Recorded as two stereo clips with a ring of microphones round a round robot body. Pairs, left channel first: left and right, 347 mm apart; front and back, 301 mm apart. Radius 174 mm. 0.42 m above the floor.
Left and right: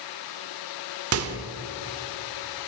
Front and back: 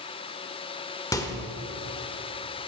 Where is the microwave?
75° right, 1.2 m.